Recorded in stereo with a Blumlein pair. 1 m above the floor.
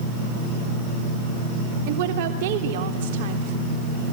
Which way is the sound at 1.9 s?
50° right.